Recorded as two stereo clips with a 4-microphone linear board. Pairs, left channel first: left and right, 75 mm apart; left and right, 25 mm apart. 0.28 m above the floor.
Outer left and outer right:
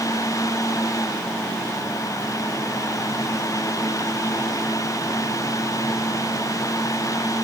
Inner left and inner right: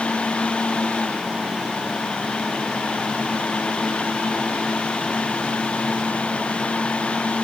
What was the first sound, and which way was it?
Only background noise.